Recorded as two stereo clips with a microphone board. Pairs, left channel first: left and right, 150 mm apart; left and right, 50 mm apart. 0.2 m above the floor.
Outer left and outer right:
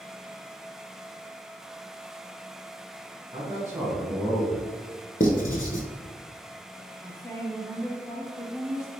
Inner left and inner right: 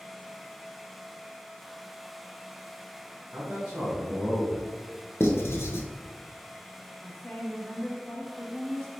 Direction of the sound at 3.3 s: 30° right (ahead or behind).